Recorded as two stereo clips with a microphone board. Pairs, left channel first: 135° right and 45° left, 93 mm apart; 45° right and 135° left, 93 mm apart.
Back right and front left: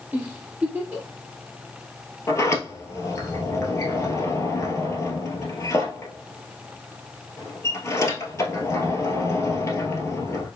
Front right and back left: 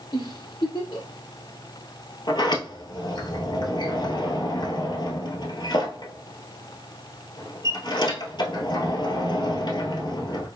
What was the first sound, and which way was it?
A giggle, 20° right.